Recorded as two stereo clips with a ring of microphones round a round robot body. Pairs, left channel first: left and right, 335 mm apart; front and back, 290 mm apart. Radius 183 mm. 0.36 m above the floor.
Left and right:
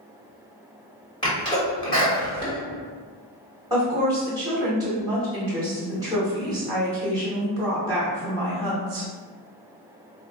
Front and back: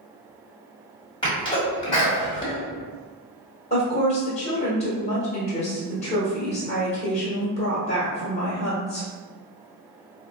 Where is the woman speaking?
25° right, 1.2 m.